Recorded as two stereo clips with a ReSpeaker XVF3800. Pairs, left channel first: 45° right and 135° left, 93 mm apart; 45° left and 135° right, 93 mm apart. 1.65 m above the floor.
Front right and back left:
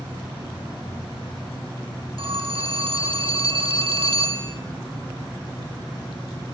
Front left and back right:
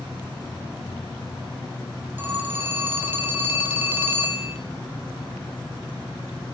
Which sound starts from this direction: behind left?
A phone ringing, at 2.2 s.